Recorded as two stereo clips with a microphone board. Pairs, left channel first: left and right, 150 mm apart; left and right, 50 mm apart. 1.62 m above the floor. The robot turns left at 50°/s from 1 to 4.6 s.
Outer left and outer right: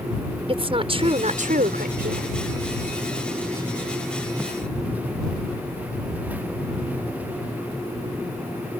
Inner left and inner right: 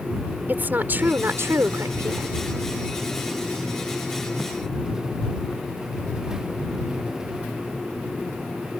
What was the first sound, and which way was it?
A woman speaking, 40° right.